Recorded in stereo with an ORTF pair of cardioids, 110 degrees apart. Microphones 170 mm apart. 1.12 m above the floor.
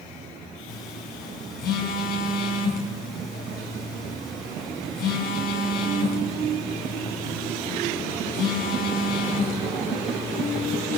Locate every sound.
0.7 s a phone buzzing: 70° left, 6 m